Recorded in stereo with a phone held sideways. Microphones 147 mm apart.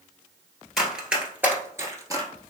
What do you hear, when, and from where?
0.8 s running footsteps: centre (ahead or behind), 1.5 m; by 2.3 s 25° right (ahead or behind), 1.5 m